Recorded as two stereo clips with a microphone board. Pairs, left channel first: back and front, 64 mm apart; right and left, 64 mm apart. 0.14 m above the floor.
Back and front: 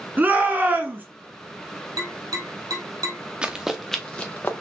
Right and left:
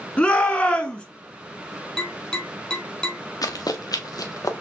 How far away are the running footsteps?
About 1.0 m.